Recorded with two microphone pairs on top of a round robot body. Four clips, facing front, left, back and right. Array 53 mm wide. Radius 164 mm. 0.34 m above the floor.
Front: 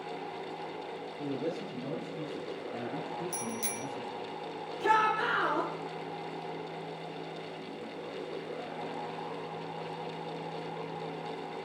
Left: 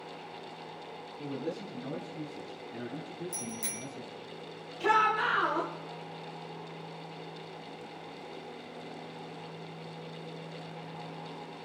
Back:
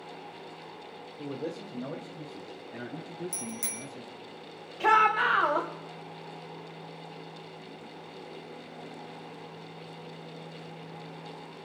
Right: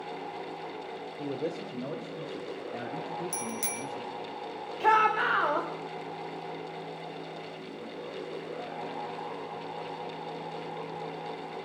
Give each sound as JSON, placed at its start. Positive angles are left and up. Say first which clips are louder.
{"t": 1.2, "sound": "a man speaking", "louder": "right 3 dB, front 1 dB", "azimuth_deg": -110, "distance_m": 2.5}
{"t": 3.3, "sound": "a bicycle bell", "louder": "right 5 dB, front 3 dB", "azimuth_deg": -105, "distance_m": 3.5}
{"t": 4.8, "sound": "a shout", "louder": "right 3 dB, back 4 dB", "azimuth_deg": -150, "distance_m": 2.5}